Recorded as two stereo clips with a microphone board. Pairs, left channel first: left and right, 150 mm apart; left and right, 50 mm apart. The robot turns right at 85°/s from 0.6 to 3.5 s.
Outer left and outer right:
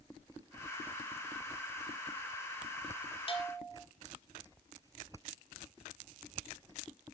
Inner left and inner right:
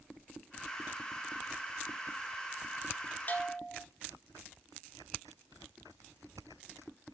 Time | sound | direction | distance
3.3 | a bell | 40° left (ahead or behind) | 1.2 m